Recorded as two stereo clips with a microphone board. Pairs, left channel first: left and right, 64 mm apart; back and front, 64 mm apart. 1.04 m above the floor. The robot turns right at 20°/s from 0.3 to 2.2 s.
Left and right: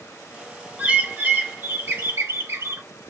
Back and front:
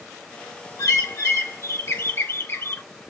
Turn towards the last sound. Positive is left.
turn(degrees=-130)